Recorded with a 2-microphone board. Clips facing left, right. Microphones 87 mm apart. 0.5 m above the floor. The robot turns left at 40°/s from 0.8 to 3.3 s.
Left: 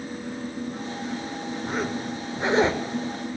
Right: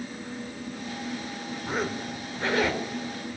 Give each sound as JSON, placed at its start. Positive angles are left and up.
{"t": 1.6, "sound": "a zipper", "azimuth_deg": -175, "distance_m": 1.5}